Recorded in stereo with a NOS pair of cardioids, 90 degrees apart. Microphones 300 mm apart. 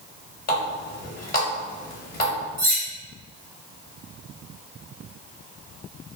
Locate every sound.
0.5 s a running tap: 30° left, 1.1 m
2.6 s cutlery clinking: 50° right, 1.8 m